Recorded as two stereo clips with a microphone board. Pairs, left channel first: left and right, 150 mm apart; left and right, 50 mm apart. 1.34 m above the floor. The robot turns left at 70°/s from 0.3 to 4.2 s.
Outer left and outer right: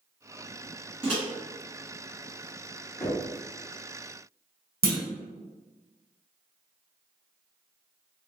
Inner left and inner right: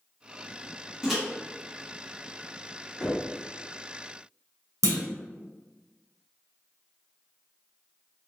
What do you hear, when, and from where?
1.0 s a microwave: 10° right (ahead or behind), 1.8 m; by 1.2 s 5° left (ahead or behind), 1.8 m
3.0 s knocking: 15° left (ahead or behind), 2.0 m; by 3.2 s 5° right (ahead or behind), 2.0 m
4.8 s a clunk: 85° right, 1.0 m